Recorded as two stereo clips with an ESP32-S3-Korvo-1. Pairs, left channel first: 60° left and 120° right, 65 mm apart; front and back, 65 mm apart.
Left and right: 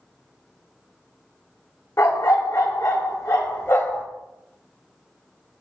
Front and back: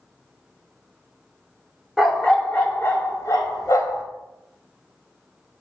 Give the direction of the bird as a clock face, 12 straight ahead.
No bird in this recording.